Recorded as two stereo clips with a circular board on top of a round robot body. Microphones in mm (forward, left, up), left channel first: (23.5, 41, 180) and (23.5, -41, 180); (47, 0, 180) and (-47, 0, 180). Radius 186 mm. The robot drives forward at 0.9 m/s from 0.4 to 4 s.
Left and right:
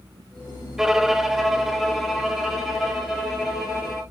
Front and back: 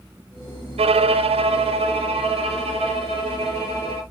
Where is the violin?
175° right, 0.6 m; by 4.0 s straight behind, 3.5 m.